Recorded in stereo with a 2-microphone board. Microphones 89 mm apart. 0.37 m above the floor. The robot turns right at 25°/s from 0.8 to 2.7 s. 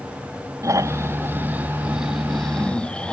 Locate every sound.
0.6 s snoring: 35° right; by 3.1 s 10° left